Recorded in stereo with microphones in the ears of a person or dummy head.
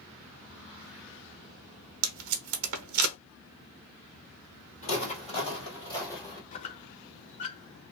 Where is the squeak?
40° left (ahead or behind), 0.5 m.